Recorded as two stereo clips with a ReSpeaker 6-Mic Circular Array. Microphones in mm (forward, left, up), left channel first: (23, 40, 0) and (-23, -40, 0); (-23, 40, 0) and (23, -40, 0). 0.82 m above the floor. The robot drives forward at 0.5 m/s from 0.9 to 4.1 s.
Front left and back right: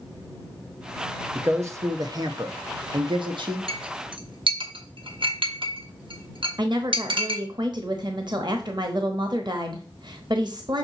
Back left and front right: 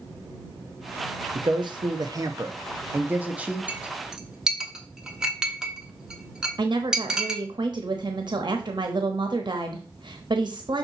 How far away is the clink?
About 0.8 m.